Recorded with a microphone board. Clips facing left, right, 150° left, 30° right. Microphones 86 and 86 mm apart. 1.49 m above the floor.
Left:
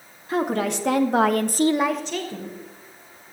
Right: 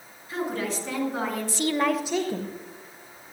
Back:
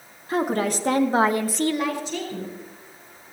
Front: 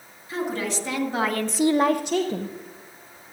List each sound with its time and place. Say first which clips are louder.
0.3 s a woman speaking: left 6 dB, back 5 dB; 115° left, 2 m; by 2.6 s 30° right, 1.5 m